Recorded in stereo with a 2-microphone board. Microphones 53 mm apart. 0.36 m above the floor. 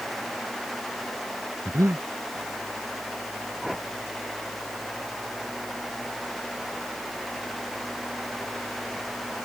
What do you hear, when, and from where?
1.6 s breathing: 85° right
3.6 s a whoosh: centre (ahead or behind)